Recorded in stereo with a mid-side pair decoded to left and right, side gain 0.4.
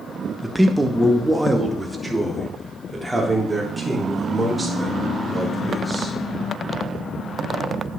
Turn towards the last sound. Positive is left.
turn(degrees=-10)